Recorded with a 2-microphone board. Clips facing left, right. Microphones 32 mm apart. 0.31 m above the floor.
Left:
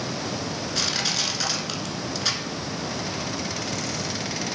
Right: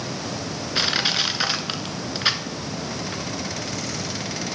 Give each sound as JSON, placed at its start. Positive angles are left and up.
{"t": 0.8, "sound": "crushing", "side_deg": -30, "distance_m": 0.7}